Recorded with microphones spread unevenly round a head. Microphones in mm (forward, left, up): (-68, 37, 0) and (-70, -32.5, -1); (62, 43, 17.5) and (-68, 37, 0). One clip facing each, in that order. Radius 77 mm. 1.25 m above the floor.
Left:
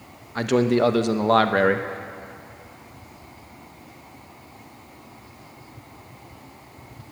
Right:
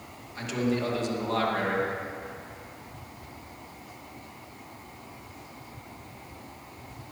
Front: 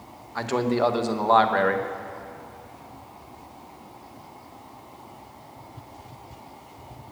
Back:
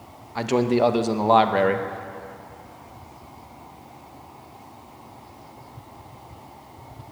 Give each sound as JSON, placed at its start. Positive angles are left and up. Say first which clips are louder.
{"t": 0.3, "sound": "a man speaking", "louder": "left 9 dB, back 3 dB", "azimuth_deg": 110, "distance_m": 1.0}